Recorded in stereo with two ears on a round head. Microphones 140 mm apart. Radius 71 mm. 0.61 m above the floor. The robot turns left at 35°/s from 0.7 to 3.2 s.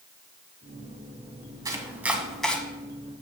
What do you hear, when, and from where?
1.6 s chopping: 25° right (ahead or behind), 1.1 m; by 2.6 s 10° left (ahead or behind), 1.1 m